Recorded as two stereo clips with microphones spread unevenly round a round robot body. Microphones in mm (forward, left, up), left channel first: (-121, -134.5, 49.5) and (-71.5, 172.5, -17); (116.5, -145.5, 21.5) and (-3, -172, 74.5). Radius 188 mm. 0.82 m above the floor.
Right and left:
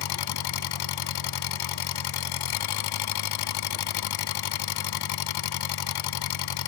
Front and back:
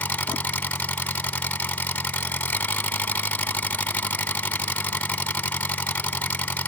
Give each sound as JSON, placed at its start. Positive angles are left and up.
{"t": 0.0, "sound": "an engine running", "azimuth_deg": -65}